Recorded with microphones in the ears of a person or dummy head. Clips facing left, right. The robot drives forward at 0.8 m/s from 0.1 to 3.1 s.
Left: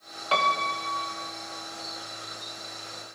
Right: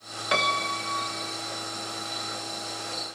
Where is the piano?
20° right (ahead or behind), 2.0 m; by 1.4 s 35° right (ahead or behind), 1.2 m.